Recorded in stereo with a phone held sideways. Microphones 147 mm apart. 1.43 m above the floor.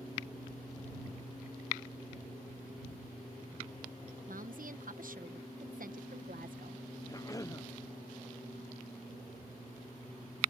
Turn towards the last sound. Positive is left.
turn(degrees=25)  # may be behind; listen again after turning